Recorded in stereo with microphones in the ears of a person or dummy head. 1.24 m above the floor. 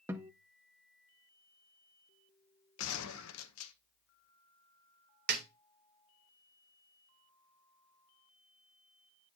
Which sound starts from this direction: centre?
A guitar, at 0.1 s.